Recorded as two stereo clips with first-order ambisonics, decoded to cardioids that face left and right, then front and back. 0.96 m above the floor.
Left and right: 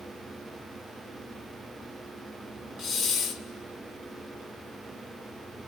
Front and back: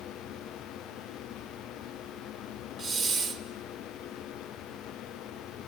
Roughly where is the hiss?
Behind left.